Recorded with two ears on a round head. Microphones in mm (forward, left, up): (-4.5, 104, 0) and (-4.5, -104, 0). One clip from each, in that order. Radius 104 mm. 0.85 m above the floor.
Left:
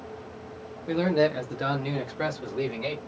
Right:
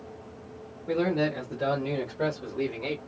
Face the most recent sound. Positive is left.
turn(degrees=65)  # may be behind; listen again after turning